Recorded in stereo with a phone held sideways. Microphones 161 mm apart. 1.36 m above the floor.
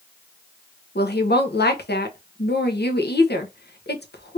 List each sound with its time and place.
0.9 s a woman speaking: 80° left, 0.9 m